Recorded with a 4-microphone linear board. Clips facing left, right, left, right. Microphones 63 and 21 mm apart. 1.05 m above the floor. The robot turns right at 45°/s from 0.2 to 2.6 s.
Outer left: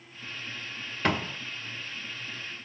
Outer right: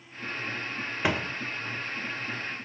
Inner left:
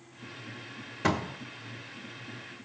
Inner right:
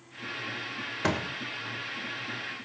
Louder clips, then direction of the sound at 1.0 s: Outer left 1 dB, inner left 1 dB; 10° right (ahead or behind).